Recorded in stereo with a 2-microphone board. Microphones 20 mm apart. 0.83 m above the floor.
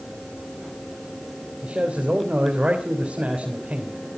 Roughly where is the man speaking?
Right.